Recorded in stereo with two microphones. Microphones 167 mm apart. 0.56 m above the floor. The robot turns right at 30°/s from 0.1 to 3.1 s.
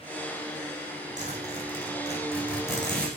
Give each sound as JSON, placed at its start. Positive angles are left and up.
{"t": 1.2, "sound": "a zipper", "side_deg": -45, "distance_m": 8.0}